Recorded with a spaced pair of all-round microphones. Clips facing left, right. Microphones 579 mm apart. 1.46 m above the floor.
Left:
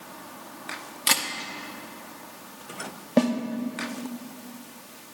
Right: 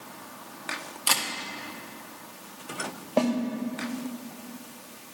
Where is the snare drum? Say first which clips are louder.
Left 3 dB; 45° left (ahead or behind), 0.7 m.